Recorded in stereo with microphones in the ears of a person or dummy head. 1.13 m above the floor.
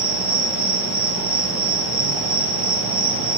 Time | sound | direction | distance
0.0 | an insect | 5° right (ahead or behind) | 7 m